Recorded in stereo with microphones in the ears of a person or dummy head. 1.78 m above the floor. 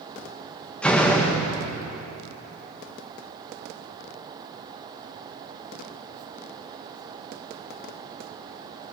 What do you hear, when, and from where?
0.8 s a door slam: 5° left (ahead or behind), 1.7 m